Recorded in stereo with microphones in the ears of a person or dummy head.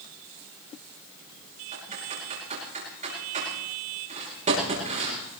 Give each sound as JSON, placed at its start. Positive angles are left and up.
{"t": 1.7, "sound": "typing on a keyboard", "side_deg": -40, "distance_m": 9.0}